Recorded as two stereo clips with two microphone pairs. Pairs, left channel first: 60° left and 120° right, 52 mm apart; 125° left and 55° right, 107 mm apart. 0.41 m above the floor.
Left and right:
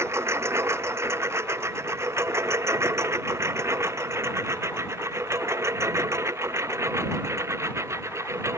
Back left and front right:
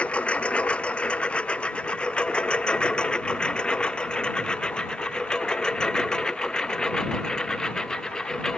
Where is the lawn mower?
155° right; by 8.6 s 150° right.